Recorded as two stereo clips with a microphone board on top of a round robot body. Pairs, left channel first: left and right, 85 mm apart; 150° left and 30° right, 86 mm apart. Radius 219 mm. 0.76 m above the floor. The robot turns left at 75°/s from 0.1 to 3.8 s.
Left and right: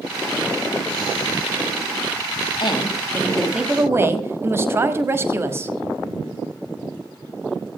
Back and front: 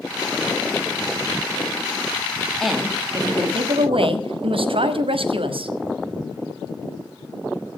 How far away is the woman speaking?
About 1.6 m.